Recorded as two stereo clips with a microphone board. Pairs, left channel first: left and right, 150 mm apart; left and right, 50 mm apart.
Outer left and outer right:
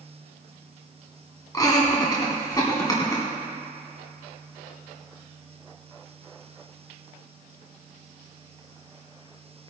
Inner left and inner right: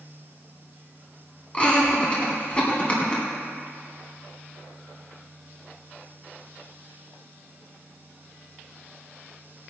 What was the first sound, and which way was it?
Laughter, 25° left (ahead or behind).